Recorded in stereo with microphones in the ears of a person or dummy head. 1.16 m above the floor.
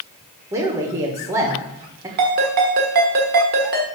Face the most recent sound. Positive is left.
turn(degrees=-50)  # may be behind; listen again after turning